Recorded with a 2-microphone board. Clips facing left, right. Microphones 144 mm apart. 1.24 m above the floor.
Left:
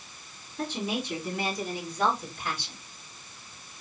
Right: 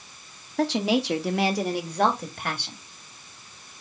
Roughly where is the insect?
I don't hear an insect.